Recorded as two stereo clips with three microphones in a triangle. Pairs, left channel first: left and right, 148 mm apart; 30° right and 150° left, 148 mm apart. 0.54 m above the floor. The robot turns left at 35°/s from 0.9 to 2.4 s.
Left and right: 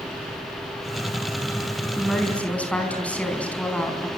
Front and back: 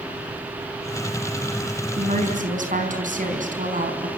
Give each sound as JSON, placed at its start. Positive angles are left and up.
{"t": 2.0, "sound": "a woman speaking", "azimuth_deg": -175, "distance_m": 4.5}